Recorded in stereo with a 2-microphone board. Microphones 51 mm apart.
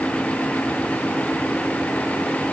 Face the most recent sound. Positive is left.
No sound to turn to.